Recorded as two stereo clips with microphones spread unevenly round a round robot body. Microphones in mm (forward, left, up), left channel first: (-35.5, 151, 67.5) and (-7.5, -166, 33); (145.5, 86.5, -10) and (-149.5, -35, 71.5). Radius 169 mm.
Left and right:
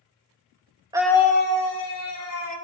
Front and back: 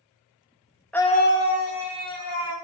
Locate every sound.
0.9 s a scream: 35° right, 0.6 m; by 2.5 s 55° left, 2 m